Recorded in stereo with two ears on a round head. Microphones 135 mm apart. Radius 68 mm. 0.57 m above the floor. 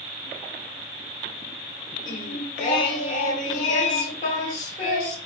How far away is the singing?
About 1.4 m.